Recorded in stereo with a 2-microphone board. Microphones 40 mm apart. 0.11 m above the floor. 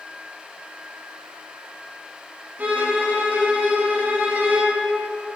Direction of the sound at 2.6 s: 50° right (ahead or behind).